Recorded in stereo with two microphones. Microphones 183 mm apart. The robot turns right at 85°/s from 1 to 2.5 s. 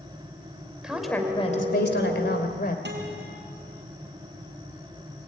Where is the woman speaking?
5° right, 2.5 m; by 2.8 s 125° left, 2.5 m.